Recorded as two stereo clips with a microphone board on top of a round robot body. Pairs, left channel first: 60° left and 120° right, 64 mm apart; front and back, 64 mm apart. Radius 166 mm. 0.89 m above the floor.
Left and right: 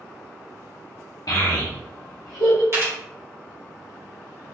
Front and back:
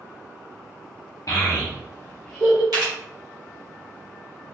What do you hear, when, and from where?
1.3 s a child speaking: 40° left, 1.1 m; by 2.6 s 100° left, 0.6 m
2.7 s a camera shutter: 165° right, 1.1 m